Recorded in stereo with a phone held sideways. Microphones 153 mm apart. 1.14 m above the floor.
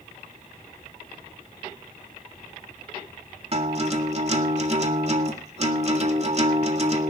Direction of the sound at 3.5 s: 45° right (ahead or behind).